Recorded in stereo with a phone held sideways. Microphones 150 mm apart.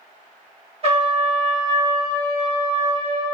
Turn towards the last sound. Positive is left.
turn(degrees=-40)  # may be behind; listen again after turning